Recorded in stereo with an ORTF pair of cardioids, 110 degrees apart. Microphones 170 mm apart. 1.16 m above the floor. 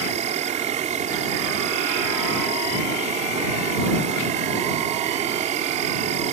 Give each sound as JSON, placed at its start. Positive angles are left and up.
{"t": 0.0, "sound": "an insect", "azimuth_deg": -50}